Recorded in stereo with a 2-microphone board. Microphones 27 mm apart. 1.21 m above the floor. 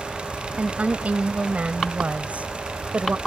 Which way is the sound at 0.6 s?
55° right (ahead or behind).